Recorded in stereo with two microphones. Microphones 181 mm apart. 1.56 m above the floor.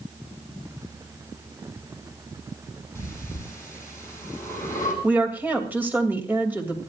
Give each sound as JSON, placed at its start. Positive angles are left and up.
{"t": 3.0, "sound": "breathing", "side_deg": 15, "distance_m": 7.5}
{"t": 5.0, "sound": "a woman speaking", "side_deg": -10, "distance_m": 3.0}